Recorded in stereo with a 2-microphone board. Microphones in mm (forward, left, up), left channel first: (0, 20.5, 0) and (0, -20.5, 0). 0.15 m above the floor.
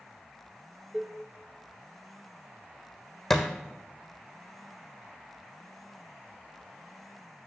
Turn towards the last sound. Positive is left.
turn(degrees=5)  # may be behind; listen again after turning